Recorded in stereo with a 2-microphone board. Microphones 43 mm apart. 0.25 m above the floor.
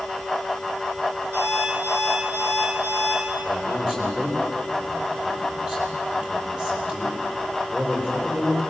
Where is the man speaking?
25° right (ahead or behind), 8 m.